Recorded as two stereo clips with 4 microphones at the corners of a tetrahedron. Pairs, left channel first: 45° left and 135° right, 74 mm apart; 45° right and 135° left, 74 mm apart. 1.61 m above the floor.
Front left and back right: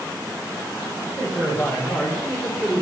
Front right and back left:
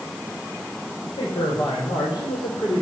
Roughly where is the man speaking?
Ahead right.